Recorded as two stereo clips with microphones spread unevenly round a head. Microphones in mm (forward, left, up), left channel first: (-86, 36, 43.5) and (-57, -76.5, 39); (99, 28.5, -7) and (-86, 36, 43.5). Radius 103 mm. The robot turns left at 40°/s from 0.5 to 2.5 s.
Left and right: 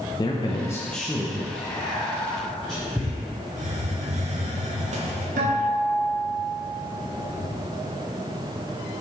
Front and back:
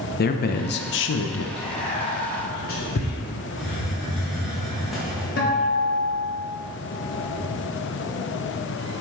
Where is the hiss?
90° right, 1.4 m.